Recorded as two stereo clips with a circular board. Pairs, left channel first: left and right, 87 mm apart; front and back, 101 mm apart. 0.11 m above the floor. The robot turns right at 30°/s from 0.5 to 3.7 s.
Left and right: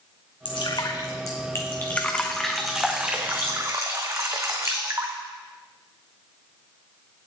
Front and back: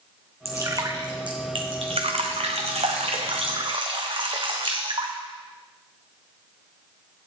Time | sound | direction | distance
0.5 | dripping | 120° left | 1.3 m